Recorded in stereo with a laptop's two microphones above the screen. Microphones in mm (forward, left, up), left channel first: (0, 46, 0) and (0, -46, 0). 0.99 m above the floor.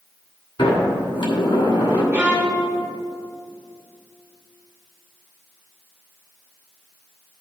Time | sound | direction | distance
0.6 | a sliding door | 65° left (ahead or behind) | 2.5 m
2.1 | a violin | 20° right (ahead or behind) | 1.5 m